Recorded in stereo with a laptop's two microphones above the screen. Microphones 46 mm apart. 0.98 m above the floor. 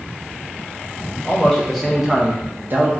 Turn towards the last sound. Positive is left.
turn(degrees=-55)  # may be behind; listen again after turning